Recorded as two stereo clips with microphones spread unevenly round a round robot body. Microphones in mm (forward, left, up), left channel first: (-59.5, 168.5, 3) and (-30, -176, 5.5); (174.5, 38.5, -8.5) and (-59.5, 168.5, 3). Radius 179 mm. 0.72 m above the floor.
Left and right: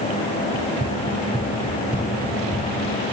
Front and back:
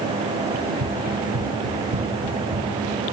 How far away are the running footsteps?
About 5 m.